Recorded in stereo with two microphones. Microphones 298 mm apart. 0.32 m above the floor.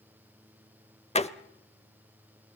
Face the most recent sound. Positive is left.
turn(degrees=20)  # may be behind; listen again after turning